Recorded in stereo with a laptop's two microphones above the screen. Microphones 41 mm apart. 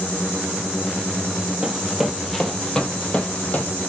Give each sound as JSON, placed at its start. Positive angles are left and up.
{"t": 1.6, "sound": "running footsteps", "side_deg": -10, "distance_m": 2.0}